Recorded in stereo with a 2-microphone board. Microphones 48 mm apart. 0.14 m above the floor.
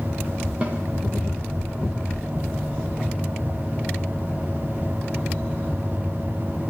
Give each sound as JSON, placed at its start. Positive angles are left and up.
{"t": 0.6, "sound": "a snare drum", "side_deg": -25, "distance_m": 6.5}